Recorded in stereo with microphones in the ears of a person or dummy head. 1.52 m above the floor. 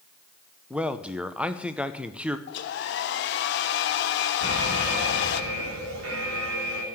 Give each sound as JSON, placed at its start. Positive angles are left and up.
{"t": 0.7, "sound": "a man speaking", "side_deg": -5, "distance_m": 0.7}
{"t": 2.5, "sound": "a hair dryer", "side_deg": 60, "distance_m": 0.9}
{"t": 4.4, "sound": "an alarm", "side_deg": -75, "distance_m": 3.0}